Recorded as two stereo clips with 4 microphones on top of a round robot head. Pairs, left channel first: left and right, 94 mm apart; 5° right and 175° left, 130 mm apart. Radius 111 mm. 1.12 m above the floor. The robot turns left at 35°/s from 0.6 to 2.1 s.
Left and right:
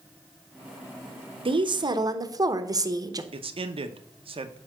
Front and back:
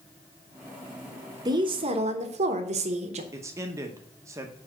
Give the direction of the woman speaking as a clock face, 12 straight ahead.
4 o'clock.